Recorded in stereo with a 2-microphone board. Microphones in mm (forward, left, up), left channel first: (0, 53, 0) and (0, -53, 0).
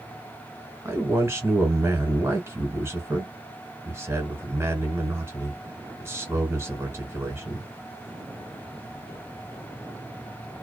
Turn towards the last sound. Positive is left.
turn(degrees=-25)  # may be behind; listen again after turning